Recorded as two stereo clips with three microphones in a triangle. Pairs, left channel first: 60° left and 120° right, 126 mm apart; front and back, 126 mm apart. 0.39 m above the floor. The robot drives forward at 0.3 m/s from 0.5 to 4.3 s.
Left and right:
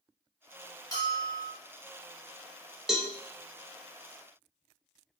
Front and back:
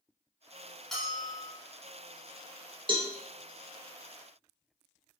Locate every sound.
0.9 s a bell: 85° left, 1.2 m; by 1.5 s 100° left, 1.2 m
2.9 s a cowbell: 155° left, 0.6 m; by 3.1 s 160° left, 0.6 m